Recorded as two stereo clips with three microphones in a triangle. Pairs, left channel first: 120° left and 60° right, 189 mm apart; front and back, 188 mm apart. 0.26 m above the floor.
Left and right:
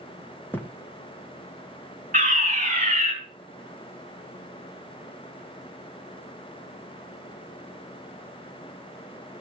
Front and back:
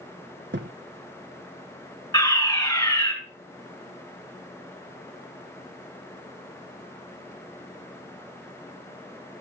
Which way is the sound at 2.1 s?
60° right.